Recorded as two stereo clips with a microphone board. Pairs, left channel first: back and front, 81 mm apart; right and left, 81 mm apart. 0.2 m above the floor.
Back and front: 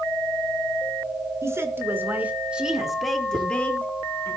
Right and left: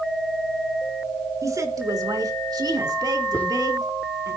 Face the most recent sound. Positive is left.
turn(degrees=-15)